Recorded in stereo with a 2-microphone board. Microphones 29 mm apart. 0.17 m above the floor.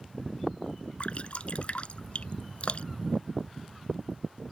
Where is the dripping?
45° left (ahead or behind).